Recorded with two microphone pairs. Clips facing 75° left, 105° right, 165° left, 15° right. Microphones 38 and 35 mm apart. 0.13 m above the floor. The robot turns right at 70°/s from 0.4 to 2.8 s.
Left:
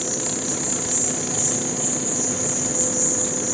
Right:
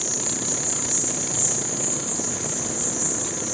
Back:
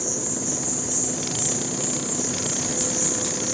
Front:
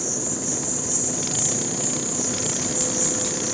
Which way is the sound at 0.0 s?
70° left.